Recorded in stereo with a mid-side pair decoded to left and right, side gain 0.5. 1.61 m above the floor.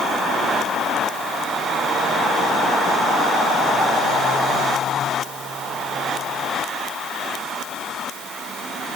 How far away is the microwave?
I don't hear a microwave.